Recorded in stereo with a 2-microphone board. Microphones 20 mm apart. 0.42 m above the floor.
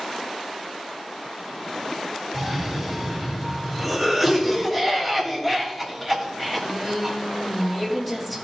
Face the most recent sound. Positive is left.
turn(degrees=5)  # may be behind; listen again after turning